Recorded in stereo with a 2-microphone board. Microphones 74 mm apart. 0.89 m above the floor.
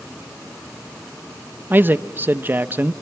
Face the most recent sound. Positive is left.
turn(degrees=-30)  # may be behind; listen again after turning